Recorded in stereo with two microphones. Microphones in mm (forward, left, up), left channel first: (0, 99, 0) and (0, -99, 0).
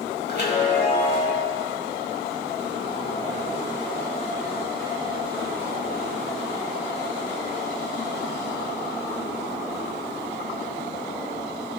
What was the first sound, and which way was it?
A chime, 60° left (ahead or behind).